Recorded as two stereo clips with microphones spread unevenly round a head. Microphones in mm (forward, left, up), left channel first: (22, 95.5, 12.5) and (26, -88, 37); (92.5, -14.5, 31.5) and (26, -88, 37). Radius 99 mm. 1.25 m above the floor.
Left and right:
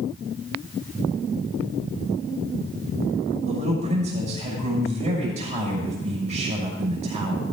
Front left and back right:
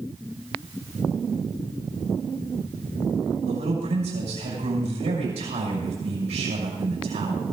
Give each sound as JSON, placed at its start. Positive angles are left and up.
{"t": 3.5, "sound": "a man speaking", "azimuth_deg": -145, "distance_m": 6.0}